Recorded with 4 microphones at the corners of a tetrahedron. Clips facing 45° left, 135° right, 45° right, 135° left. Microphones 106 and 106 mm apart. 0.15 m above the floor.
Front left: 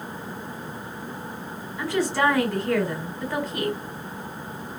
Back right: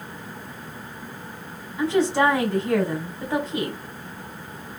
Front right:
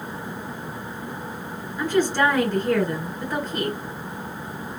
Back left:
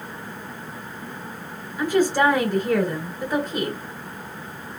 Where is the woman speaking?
165° right, 1.5 m.